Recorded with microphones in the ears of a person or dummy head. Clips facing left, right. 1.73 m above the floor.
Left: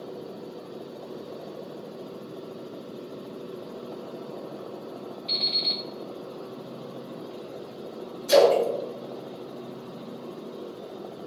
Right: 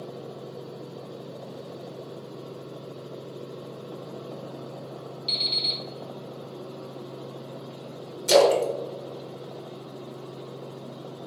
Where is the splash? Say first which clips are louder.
Even; 75° right (ahead or behind), 1.0 m.